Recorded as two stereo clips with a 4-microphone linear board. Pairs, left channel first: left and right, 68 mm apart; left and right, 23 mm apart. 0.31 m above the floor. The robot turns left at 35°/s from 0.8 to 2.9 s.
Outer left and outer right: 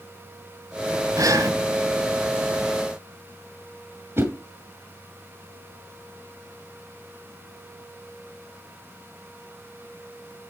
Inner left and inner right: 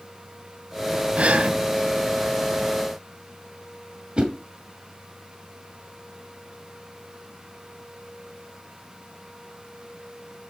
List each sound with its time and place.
1.2 s breathing: 60° right (ahead or behind), 1.5 m
4.2 s a whoosh: 40° right (ahead or behind), 2.0 m